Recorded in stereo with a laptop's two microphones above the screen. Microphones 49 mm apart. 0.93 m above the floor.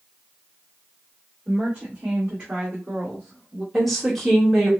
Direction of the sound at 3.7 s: 5° left (ahead or behind).